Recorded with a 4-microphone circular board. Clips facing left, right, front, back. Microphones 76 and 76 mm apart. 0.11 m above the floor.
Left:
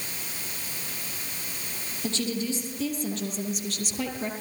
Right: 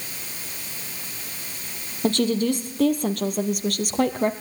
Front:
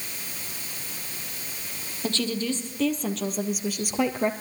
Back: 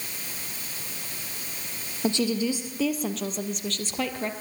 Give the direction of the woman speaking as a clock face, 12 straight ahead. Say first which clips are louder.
Right 9 dB, back 3 dB; 4 o'clock.